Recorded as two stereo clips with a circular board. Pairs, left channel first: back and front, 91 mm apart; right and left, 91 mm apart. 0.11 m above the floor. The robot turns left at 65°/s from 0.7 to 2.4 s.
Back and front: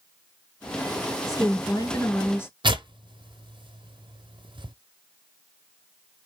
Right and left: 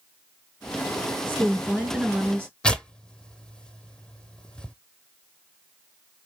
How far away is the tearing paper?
About 0.7 m.